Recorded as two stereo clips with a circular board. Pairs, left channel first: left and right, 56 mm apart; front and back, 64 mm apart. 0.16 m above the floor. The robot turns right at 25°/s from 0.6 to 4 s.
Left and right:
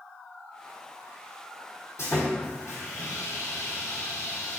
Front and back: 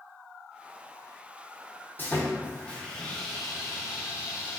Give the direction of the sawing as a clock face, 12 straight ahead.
10 o'clock.